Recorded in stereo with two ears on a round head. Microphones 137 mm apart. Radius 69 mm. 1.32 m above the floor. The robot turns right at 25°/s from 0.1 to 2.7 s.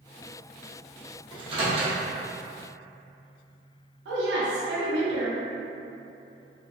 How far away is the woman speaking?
About 0.7 m.